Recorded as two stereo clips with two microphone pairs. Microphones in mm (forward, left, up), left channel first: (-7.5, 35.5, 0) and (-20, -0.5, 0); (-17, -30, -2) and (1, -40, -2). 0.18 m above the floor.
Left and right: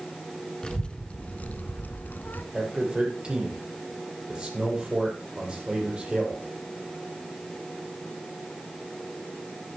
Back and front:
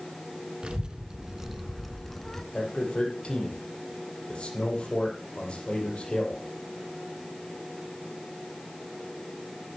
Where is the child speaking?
Straight ahead, 1.3 m; by 2.4 s 85° left, 1.2 m.